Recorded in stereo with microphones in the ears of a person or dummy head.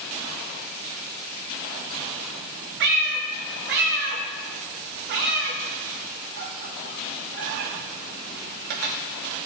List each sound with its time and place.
2.8 s a cat meowing: 55° right (ahead or behind), 0.7 m